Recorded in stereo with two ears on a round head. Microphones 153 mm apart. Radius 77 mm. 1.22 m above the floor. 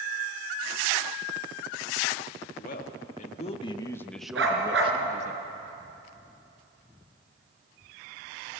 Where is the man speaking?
55° left (ahead or behind), 2 m; by 5.3 s 45° right (ahead or behind), 1.6 m.